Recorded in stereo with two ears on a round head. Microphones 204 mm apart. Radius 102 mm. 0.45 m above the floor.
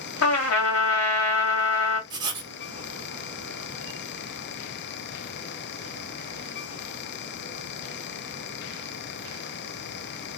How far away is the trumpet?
About 0.9 m.